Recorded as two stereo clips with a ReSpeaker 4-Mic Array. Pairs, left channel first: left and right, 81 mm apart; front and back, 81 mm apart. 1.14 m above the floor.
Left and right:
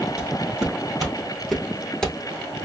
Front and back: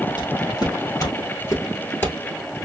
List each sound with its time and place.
0.2 s footsteps: 10° right, 2 m; by 2.2 s 30° left, 1.2 m